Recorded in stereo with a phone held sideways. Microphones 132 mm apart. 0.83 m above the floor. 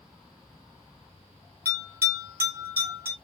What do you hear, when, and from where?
1.6 s a bell: 20° right (ahead or behind), 3 m